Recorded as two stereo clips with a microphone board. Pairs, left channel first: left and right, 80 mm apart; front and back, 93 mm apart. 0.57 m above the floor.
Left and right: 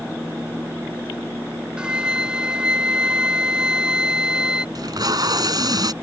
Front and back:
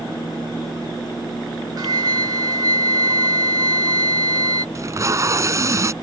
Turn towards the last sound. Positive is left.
turn(degrees=-125)